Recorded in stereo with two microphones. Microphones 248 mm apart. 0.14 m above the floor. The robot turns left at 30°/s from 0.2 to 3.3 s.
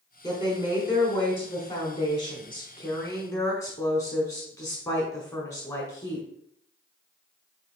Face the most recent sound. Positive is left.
turn(degrees=15)  # may be behind; listen again after turning